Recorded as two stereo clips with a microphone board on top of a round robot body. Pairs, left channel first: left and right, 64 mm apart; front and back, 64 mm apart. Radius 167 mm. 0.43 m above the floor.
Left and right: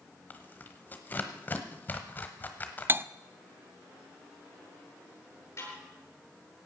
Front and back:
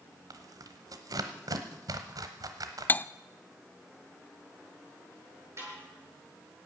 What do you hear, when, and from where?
0.3 s tearing paper: 155° left, 1.1 m
2.9 s cutlery clinking: 50° right, 0.5 m
5.6 s a snare drum: 135° left, 9 m